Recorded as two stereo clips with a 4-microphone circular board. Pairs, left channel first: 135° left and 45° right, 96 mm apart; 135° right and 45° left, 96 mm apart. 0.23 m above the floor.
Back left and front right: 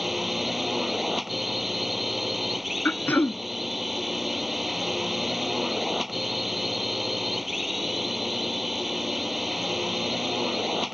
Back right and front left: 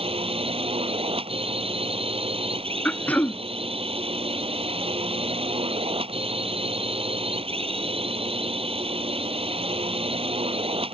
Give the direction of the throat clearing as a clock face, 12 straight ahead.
6 o'clock.